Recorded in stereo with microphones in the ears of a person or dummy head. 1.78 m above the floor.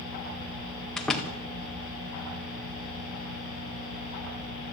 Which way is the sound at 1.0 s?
Centre (ahead or behind).